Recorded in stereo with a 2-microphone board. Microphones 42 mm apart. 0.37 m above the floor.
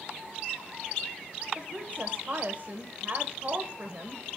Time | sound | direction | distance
1.6 | a woman speaking | 40° right (ahead or behind) | 1.4 m